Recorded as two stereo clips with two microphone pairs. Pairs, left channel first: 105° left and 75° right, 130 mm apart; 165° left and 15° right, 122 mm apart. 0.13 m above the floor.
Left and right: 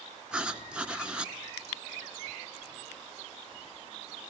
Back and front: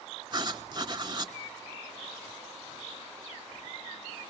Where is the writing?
5° left, 0.7 m.